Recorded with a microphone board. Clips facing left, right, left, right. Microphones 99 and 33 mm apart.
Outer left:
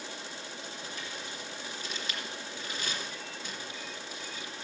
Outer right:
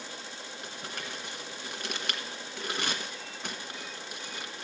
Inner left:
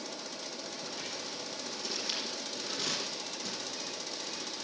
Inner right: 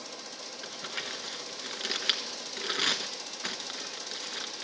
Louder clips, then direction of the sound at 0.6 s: Outer right 1 dB, inner right 3 dB; 65° right (ahead or behind).